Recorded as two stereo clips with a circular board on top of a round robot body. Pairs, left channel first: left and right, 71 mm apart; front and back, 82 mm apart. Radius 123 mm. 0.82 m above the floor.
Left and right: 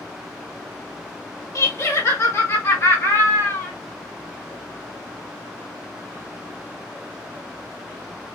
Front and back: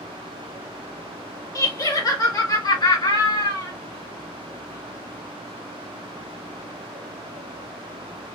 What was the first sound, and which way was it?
Laughter, 50° left.